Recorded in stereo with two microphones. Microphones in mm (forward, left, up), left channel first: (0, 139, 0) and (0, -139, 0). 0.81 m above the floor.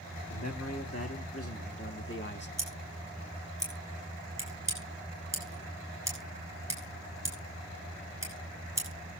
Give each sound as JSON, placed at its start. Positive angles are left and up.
{"t": 0.3, "sound": "a man speaking", "side_deg": 65, "distance_m": 2.0}
{"t": 2.6, "sound": "scissors", "side_deg": -10, "distance_m": 8.0}